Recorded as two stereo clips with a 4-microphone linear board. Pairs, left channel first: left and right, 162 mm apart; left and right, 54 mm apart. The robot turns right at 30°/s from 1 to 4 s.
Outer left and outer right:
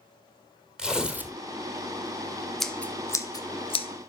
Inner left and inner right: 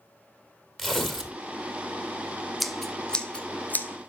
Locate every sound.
0.8 s tearing paper: 5° right (ahead or behind), 1.5 m; by 1.4 s 15° right (ahead or behind), 1.5 m
2.6 s scissors: centre (ahead or behind), 0.9 m; by 4.1 s 45° left (ahead or behind), 0.9 m